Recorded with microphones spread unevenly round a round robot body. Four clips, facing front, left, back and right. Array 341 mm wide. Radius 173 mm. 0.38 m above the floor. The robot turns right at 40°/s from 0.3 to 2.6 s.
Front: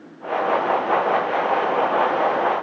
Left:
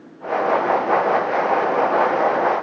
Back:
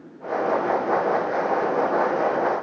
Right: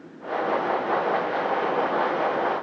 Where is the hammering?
No hammering in this recording.